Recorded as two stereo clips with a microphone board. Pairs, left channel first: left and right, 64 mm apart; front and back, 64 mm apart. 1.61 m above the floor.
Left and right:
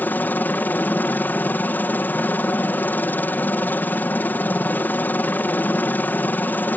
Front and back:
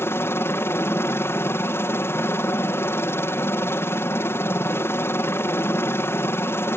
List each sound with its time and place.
0.0 s a helicopter: 40° left